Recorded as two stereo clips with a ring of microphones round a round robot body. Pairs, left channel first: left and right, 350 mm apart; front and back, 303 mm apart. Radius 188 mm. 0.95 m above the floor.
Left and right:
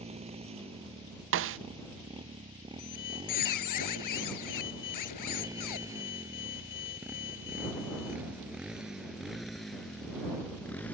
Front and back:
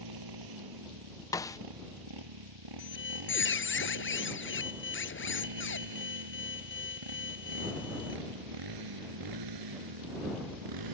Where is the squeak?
50° left.